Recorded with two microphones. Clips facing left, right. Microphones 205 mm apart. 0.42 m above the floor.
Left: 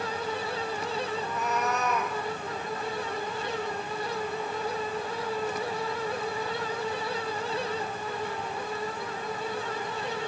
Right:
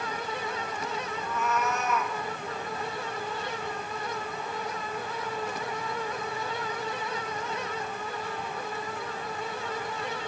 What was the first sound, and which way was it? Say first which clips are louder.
A cat meowing: even; 35° left (ahead or behind).